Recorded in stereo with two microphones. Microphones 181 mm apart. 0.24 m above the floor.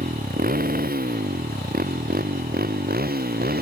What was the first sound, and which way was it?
A motorcycle, 55° right (ahead or behind).